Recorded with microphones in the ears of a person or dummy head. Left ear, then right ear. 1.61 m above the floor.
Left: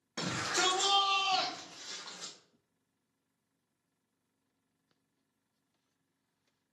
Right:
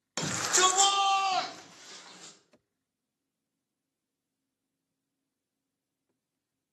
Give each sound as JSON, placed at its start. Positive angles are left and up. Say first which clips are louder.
{"t": 0.2, "sound": "a shout", "louder": "right 6 dB", "side_deg": -90, "distance_m": 0.7}